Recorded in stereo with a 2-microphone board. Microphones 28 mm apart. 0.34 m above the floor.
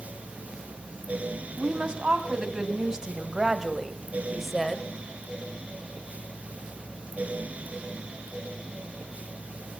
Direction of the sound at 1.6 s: 40° right (ahead or behind).